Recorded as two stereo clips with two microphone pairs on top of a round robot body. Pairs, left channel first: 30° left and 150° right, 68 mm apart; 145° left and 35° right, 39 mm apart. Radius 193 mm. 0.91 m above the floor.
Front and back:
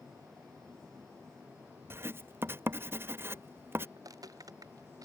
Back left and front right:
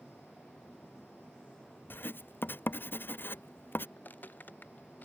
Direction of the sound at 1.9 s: 155° left.